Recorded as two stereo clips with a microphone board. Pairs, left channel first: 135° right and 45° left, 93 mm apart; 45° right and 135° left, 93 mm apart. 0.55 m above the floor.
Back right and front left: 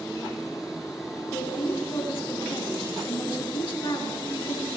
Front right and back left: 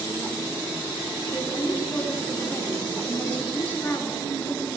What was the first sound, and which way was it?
A woman speaking, 110° right.